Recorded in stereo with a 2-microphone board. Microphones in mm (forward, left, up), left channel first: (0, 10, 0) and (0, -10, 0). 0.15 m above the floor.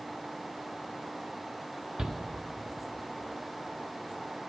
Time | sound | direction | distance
2.0 | a shout | 45° right (ahead or behind) | 1.6 m